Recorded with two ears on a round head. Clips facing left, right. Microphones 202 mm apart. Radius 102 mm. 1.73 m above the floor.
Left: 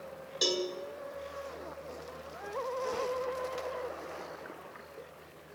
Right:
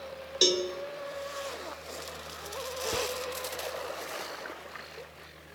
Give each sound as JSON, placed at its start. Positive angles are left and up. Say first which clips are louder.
{"t": 0.4, "sound": "a cowbell", "louder": "right 5 dB", "side_deg": -35, "distance_m": 1.7}
{"t": 2.9, "sound": "whispering", "louder": "right 5 dB", "side_deg": -60, "distance_m": 0.7}